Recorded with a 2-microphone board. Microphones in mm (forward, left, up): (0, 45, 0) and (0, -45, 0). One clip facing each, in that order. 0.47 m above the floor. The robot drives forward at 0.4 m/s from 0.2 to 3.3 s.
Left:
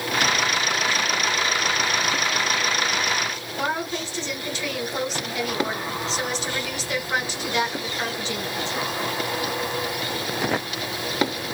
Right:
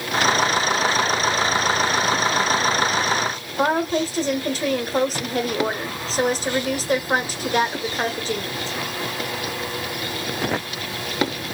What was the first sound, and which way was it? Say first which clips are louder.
A woman speaking: right 7 dB; 40° right (ahead or behind).